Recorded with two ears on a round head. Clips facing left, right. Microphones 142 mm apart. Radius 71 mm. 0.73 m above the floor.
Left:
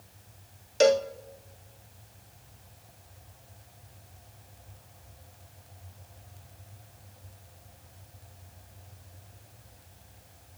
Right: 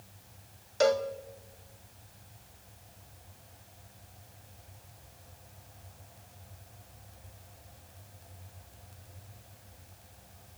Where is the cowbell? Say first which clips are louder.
Left 4 dB; 30° left (ahead or behind), 0.8 m.